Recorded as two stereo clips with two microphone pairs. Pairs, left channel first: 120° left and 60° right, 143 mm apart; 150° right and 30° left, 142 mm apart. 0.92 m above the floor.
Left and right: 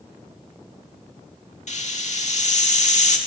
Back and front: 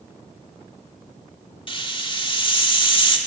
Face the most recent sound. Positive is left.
turn(degrees=155)